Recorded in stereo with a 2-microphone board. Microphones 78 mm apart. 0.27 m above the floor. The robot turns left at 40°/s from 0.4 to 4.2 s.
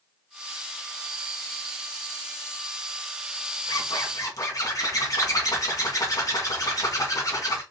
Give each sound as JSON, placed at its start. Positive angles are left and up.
{"t": 3.7, "sound": "a zipper", "side_deg": 65, "distance_m": 2.0}